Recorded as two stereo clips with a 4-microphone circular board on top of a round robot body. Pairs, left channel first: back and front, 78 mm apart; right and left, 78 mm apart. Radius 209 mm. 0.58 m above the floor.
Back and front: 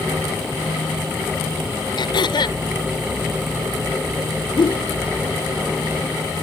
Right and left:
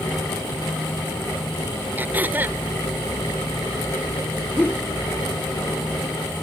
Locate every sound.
2.0 s throat clearing: 155° left
4.6 s a whoosh: 160° right